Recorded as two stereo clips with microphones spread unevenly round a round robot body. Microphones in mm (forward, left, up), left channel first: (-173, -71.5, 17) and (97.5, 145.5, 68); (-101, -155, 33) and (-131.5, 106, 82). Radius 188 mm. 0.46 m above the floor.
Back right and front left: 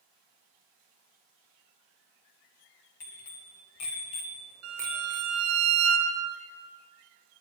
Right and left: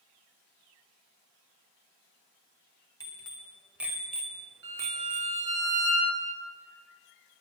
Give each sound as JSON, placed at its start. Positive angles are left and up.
{"t": 3.0, "sound": "a bicycle bell", "azimuth_deg": -155, "distance_m": 2.5}
{"t": 4.6, "sound": "a violin", "azimuth_deg": 80, "distance_m": 2.5}